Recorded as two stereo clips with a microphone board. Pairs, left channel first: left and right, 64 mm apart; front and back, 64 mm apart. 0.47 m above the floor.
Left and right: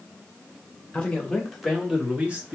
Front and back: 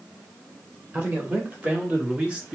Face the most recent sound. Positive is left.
turn(degrees=-115)